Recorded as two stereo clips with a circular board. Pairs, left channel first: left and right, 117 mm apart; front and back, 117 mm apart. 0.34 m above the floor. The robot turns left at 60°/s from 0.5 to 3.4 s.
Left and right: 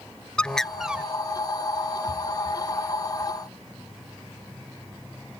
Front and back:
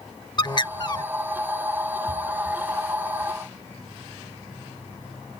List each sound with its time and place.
0.4 s a bird: 15° left; by 1.0 s 20° right